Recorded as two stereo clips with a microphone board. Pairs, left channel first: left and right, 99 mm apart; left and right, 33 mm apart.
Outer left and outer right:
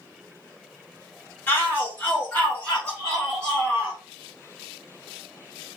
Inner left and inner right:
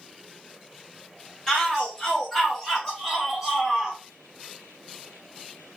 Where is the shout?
20° left (ahead or behind), 1.5 m; by 4.0 s centre (ahead or behind), 1.5 m.